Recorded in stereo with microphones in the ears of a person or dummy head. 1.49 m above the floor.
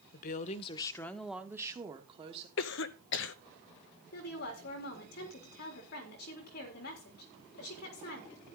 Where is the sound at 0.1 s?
55° left (ahead or behind), 1.3 m; by 2.5 s 35° right (ahead or behind), 2.0 m.